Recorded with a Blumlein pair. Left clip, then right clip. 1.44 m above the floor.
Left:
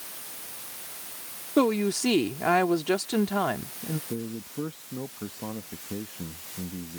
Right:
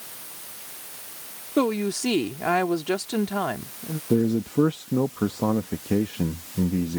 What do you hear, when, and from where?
1.6 s a woman speaking: straight ahead
4.1 s a man speaking: 60° right